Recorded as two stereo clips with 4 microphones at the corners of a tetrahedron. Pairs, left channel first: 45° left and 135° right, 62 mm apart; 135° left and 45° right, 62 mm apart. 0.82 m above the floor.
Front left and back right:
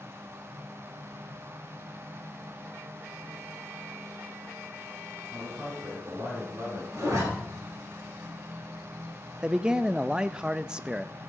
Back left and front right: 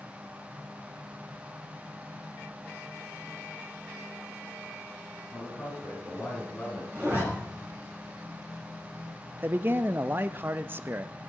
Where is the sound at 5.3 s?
170° right, 5.5 m; by 6.8 s 155° right, 6.5 m.